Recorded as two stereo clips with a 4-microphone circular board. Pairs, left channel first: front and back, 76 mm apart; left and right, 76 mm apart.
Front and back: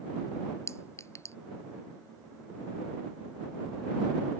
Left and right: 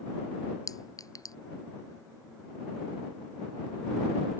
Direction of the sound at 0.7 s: 50° left.